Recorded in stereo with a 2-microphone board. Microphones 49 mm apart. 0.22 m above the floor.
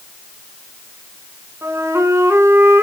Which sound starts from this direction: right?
A flute, at 1.6 s.